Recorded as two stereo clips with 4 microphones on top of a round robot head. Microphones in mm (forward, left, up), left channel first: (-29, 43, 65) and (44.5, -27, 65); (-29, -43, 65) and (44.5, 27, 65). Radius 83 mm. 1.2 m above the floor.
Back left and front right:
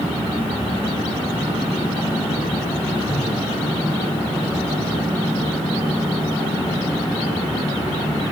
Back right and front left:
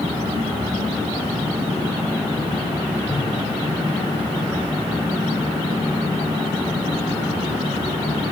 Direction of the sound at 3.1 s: 85° right.